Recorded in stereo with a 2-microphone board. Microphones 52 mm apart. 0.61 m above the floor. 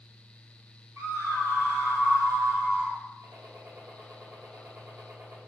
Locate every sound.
1.0 s a scream: 70° right (ahead or behind), 4 m; by 3.0 s 75° right (ahead or behind), 3.5 m
3.2 s a gunshot: 55° right (ahead or behind), 2.5 m